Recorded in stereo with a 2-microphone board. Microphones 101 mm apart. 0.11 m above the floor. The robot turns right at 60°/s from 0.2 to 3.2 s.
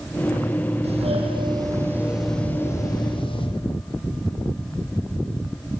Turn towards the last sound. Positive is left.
turn(degrees=55)